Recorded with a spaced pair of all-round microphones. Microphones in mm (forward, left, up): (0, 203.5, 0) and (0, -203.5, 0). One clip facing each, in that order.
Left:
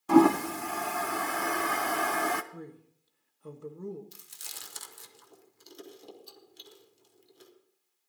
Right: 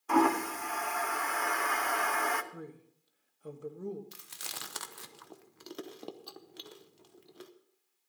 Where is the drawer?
No drawer in this recording.